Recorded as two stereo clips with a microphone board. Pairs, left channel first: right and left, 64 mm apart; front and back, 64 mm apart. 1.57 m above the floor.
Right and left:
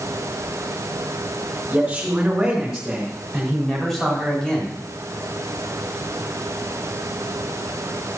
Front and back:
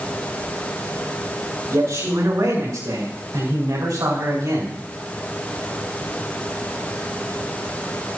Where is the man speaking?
160° left, 5.5 m; by 4.8 s 165° right, 4 m.